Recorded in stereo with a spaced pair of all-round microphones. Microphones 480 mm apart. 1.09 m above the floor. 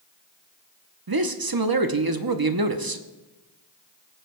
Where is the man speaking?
50° right (ahead or behind), 0.8 m.